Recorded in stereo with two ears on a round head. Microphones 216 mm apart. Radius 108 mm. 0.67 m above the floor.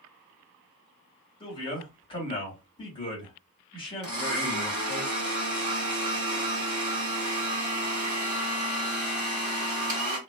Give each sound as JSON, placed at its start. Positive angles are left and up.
{"t": 1.4, "sound": "a man speaking", "side_deg": 20, "distance_m": 1.8}
{"t": 4.0, "sound": "a blender", "side_deg": -20, "distance_m": 1.4}